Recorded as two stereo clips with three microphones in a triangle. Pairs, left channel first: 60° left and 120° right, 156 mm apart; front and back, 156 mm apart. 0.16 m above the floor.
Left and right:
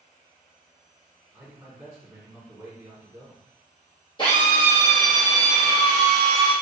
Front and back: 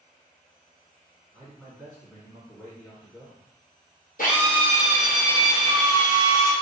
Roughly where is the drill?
Ahead.